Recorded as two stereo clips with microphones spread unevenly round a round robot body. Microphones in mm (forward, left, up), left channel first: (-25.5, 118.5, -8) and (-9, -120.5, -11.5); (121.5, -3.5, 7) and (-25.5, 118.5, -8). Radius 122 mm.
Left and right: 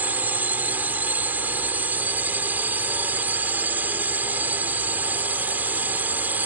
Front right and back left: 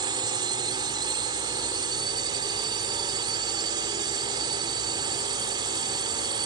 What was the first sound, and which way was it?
A drone, 165° right.